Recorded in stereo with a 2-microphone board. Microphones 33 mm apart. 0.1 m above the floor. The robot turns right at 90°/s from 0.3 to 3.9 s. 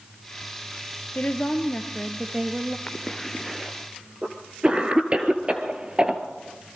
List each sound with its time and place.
1.1 s a woman speaking: 85° left, 1.8 m; by 2.8 s 130° right, 1.8 m
2.9 s a cough: 40° left (ahead or behind), 1.5 m; by 6.2 s 30° right (ahead or behind), 1.5 m